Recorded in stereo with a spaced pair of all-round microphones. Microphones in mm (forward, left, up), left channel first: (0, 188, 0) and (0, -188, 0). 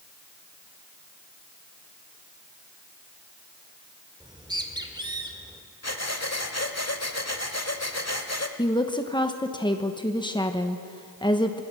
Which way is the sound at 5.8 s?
40° left (ahead or behind).